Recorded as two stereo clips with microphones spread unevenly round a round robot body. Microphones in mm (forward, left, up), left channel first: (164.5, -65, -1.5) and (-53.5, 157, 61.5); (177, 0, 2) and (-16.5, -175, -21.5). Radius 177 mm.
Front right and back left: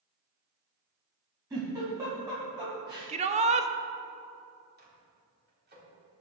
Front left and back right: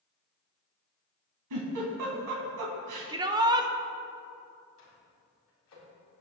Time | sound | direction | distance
1.5 | a giggle | 145° right | 2.5 m
3.1 | a shout | 160° right | 0.6 m
4.8 | a microwave | 75° left | 4 m